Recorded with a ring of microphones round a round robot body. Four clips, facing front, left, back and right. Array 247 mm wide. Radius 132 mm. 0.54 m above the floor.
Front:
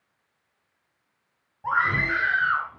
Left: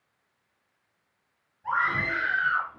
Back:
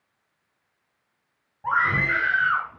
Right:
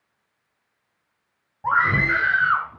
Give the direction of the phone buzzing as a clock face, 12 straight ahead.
No phone buzzing in this recording.